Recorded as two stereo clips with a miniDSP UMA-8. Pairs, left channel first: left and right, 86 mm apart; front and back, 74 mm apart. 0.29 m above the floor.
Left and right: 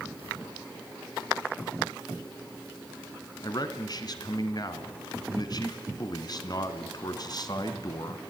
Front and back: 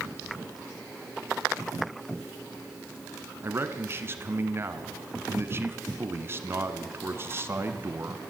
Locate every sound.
3.4 s a man speaking: 125° left, 2.5 m